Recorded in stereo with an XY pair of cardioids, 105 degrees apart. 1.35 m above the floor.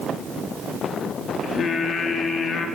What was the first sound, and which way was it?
Singing, 50° left.